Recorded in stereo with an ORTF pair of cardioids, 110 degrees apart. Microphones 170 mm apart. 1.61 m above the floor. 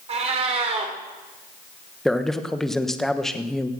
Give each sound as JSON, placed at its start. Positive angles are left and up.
{"t": 0.1, "sound": "a cat meowing", "azimuth_deg": -40, "distance_m": 3.0}
{"t": 2.0, "sound": "a man speaking", "azimuth_deg": 5, "distance_m": 1.2}